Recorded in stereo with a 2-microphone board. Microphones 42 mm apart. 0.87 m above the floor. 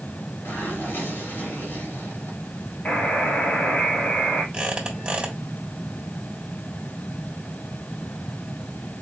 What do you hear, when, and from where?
0.5 s a zipper: 70° left (ahead or behind), 2.5 m
2.9 s a buzzer: 35° left (ahead or behind), 3 m
4.5 s a squeak: 25° right (ahead or behind), 1.4 m